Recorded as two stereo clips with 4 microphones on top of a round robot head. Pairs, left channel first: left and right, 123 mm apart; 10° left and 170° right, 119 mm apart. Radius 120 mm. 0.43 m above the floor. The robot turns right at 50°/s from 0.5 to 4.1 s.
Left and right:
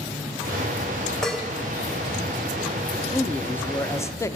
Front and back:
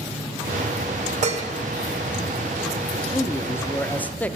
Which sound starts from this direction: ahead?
A man speaking, at 2.9 s.